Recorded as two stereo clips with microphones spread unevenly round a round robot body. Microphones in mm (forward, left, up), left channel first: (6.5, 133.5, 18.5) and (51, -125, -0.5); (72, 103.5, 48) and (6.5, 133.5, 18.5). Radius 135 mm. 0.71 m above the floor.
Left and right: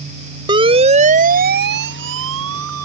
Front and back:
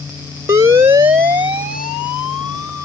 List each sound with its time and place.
0.5 s a siren: 155° right; by 2.8 s 115° right